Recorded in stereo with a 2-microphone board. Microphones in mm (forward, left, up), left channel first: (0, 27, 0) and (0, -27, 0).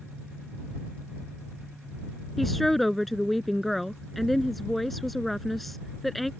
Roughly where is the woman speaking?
Centre.